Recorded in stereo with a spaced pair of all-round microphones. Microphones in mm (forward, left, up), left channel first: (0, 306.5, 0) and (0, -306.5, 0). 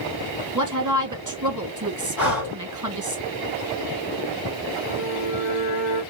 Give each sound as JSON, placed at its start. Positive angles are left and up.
{"t": 0.6, "sound": "a woman speaking", "side_deg": -30, "distance_m": 1.2}
{"t": 2.2, "sound": "breathing", "side_deg": 35, "distance_m": 2.0}
{"t": 4.9, "sound": "a violin", "side_deg": 60, "distance_m": 1.5}